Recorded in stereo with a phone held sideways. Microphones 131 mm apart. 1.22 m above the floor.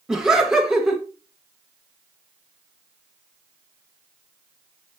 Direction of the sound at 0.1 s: 5° right (ahead or behind).